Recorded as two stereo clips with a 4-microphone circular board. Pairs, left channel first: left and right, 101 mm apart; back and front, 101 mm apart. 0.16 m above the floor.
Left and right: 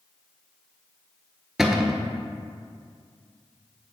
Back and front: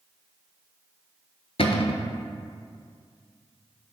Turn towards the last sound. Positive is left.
turn(degrees=-175)